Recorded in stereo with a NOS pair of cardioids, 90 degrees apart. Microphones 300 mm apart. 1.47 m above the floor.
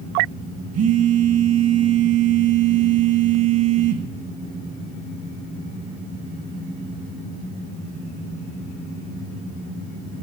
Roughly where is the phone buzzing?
Ahead right.